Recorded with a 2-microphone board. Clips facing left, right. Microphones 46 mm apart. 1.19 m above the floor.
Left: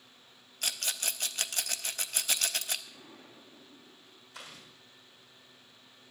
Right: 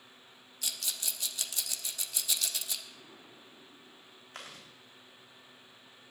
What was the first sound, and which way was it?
A rattle, 50° left (ahead or behind).